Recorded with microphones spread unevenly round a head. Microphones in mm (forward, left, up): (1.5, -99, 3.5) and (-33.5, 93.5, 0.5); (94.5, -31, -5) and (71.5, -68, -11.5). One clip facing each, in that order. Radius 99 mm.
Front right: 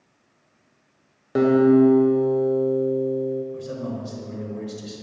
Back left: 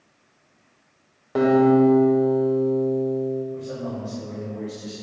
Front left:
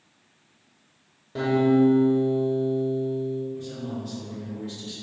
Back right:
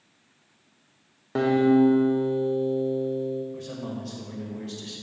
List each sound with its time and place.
1.4 s a guitar: 145° right, 0.8 m
3.5 s a man speaking: 115° right, 1.4 m